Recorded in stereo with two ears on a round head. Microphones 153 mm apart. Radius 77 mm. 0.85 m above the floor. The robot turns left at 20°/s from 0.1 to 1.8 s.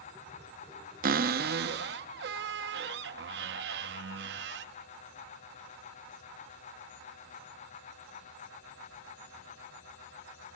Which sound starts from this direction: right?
A cupboard door, at 1.0 s.